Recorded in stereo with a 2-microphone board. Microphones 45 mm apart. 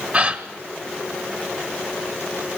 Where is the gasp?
30° right (ahead or behind), 1.4 m.